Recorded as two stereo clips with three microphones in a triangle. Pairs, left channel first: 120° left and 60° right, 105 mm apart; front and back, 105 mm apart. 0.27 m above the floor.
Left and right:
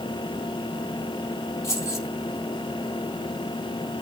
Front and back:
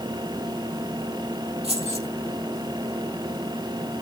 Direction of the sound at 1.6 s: 175° right.